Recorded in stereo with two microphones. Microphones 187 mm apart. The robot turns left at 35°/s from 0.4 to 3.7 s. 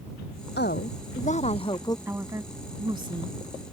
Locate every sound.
0.6 s a woman speaking: 65° left; by 2.0 s 20° left
2.1 s a woman speaking: 10° right (ahead or behind); by 3.4 s 30° right (ahead or behind)